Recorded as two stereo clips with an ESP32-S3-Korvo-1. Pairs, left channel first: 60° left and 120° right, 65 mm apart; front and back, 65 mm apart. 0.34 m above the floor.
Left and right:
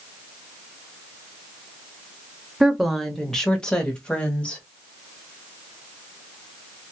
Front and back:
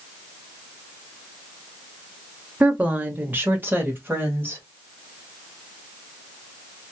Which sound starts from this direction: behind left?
A woman speaking, at 2.6 s.